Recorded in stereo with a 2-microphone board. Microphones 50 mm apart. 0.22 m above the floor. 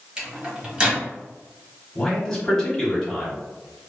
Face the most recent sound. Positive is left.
turn(degrees=10)  # may be behind; listen again after turning